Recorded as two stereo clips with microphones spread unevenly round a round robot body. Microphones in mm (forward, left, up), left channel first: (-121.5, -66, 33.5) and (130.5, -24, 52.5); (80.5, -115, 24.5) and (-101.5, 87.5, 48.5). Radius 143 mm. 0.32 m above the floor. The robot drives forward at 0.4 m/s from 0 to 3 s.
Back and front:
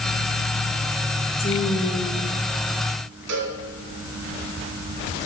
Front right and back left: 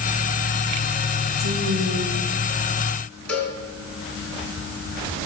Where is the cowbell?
40° left, 3 m.